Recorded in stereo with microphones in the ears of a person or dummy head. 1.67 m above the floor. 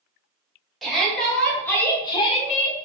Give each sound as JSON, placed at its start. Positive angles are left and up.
{"t": 0.8, "sound": "a shout", "side_deg": 0, "distance_m": 1.4}